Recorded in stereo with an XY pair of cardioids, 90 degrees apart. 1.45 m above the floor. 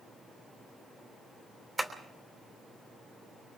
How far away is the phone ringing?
I don't hear a phone ringing.